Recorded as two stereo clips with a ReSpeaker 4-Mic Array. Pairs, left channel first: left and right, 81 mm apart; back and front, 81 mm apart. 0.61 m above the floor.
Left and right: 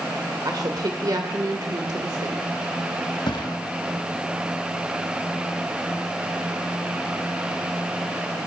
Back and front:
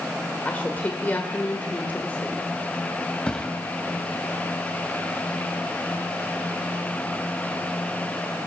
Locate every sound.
0.5 s a woman speaking: 115° right, 1.7 m
3.3 s a thud: 105° left, 1.9 m